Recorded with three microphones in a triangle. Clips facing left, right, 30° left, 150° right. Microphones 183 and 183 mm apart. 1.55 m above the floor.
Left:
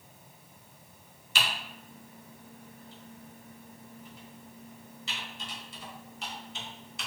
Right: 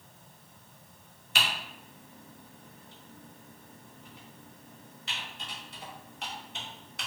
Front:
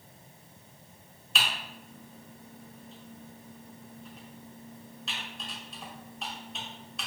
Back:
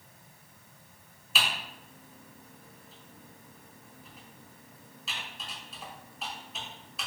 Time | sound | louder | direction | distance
1.4 | typing on a keyboard | even, back 1 dB | 60° right | 0.7 m